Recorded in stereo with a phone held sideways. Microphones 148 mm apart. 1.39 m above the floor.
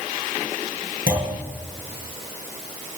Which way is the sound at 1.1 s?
75° left (ahead or behind).